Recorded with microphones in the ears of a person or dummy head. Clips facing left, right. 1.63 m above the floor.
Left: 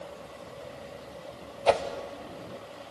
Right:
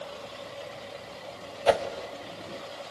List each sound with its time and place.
1.7 s a whoosh: 10° right (ahead or behind), 1.0 m